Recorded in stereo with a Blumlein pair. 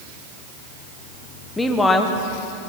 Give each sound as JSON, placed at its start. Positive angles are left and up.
{"t": 1.6, "sound": "a woman speaking", "azimuth_deg": 10, "distance_m": 1.2}